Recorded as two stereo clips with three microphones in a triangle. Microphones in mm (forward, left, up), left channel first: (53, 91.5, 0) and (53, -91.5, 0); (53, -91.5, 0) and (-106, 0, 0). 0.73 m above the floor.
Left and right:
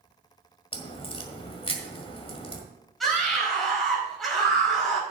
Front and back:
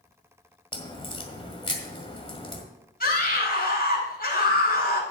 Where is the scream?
Straight ahead, 5 m.